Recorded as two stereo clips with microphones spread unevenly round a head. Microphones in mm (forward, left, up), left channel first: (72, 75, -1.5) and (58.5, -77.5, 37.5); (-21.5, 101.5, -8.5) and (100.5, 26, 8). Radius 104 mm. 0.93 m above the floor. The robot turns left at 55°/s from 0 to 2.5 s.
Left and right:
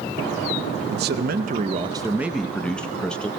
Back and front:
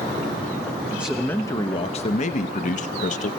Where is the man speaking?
115° right, 0.7 m; by 3.3 s 160° left, 0.7 m.